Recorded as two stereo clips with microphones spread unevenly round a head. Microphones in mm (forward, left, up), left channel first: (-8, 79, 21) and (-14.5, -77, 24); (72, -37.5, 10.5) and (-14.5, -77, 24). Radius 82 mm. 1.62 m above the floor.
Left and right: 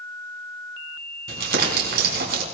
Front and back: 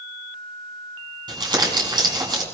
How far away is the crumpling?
About 5.5 m.